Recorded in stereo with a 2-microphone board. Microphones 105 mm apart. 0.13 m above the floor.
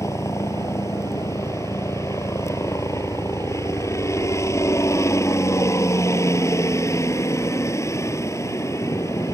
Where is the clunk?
I don't hear a clunk.